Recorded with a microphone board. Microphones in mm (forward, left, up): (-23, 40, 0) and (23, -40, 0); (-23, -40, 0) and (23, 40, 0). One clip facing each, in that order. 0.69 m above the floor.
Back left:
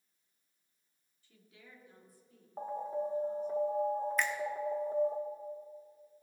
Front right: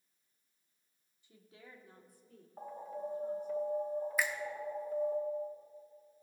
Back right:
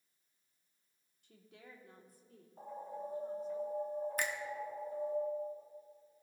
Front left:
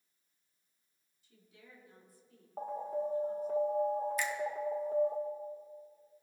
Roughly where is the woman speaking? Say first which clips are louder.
Front right 3 dB, back right 3 dB; behind right.